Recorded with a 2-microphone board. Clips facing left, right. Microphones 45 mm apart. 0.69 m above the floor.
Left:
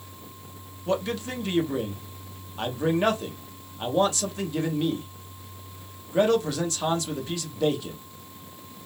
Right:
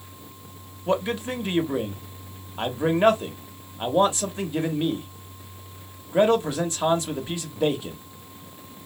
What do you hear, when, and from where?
0.9 s a man speaking: 20° right (ahead or behind), 1.0 m